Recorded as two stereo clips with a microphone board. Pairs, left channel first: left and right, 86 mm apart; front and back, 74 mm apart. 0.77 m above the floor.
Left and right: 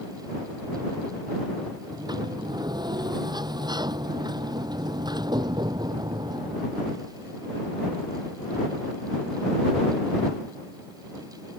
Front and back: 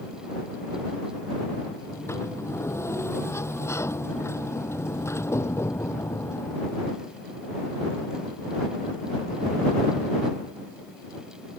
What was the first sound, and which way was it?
A sliding door, 55° right.